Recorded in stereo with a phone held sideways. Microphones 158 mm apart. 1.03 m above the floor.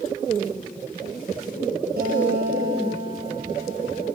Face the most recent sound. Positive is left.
turn(degrees=-75)  # may be behind; listen again after turning